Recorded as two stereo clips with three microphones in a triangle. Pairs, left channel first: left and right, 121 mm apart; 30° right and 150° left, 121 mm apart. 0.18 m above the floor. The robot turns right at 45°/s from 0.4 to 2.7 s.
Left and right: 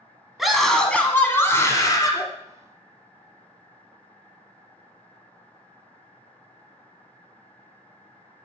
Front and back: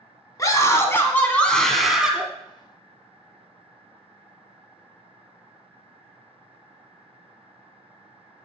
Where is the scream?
5° right, 1.1 m; by 2.2 s 80° left, 1.1 m.